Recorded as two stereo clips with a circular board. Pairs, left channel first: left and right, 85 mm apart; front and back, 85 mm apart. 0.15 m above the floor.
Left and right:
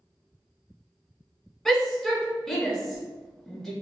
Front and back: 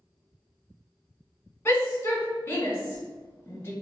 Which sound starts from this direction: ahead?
A shout, at 1.6 s.